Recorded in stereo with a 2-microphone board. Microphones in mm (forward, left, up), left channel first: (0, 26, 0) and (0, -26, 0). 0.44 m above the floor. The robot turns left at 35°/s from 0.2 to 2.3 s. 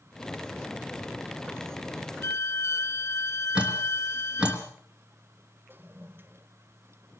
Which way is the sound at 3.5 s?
20° right (ahead or behind).